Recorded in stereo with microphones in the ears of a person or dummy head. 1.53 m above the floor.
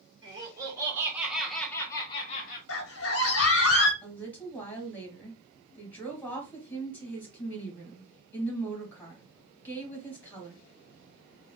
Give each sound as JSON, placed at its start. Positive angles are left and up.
{"t": 0.2, "sound": "laughter", "side_deg": -25, "distance_m": 1.7}
{"t": 2.7, "sound": "a scream", "side_deg": 70, "distance_m": 0.8}
{"t": 4.0, "sound": "a woman speaking", "side_deg": 15, "distance_m": 1.7}